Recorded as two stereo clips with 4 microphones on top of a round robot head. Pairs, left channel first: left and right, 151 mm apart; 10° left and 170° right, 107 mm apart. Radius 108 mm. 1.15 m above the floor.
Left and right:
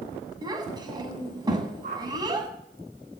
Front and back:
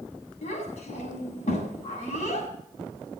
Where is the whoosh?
55° right, 7 m.